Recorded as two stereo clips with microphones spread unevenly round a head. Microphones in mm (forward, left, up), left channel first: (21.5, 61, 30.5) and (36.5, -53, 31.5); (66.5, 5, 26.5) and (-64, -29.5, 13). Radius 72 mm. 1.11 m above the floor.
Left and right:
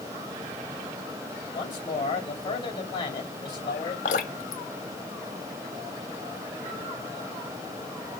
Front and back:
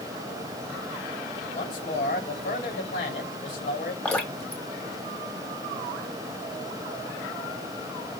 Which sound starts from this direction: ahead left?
A man speaking, at 1.5 s.